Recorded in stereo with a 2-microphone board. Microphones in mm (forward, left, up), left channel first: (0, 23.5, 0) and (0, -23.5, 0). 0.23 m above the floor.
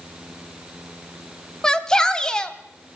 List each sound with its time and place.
1.6 s a shout: 15° left (ahead or behind), 1.4 m